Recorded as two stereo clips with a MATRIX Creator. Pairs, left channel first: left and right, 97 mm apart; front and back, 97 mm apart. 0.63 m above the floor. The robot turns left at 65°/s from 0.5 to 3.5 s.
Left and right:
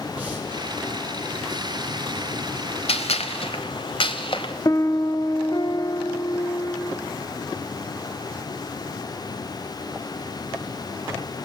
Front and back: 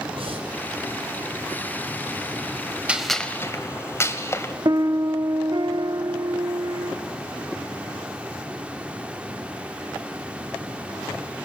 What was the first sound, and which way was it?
Breathing, 165° right.